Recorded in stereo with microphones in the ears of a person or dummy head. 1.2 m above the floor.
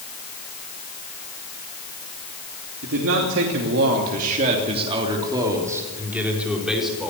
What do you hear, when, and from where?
2.8 s a man speaking: 75° right (ahead or behind), 3 m; by 7.1 s centre (ahead or behind), 5 m